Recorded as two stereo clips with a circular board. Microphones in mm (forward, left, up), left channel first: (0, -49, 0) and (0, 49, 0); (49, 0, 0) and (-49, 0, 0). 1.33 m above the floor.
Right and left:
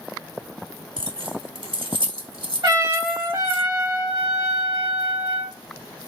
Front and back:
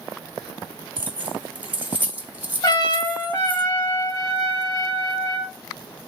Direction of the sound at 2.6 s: 45° left.